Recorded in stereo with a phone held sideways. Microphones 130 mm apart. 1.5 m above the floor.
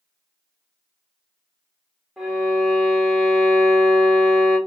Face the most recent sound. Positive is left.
turn(degrees=-5)  # may be behind; listen again after turning